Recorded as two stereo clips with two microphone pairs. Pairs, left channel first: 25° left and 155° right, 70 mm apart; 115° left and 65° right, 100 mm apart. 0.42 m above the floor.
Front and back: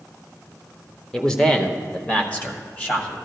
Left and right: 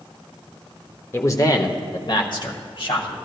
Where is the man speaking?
110° left, 0.8 m; by 3.1 s 90° left, 1.9 m.